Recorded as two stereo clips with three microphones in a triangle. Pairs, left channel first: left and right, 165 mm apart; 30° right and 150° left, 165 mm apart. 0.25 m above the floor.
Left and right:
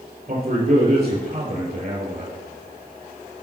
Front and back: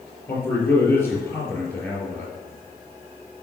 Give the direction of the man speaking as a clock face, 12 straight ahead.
4 o'clock.